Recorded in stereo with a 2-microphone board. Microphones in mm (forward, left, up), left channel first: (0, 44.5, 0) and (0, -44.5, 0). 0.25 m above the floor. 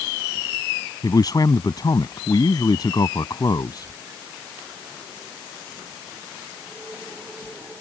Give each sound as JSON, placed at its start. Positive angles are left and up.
{"t": 1.0, "sound": "a man speaking", "side_deg": 50}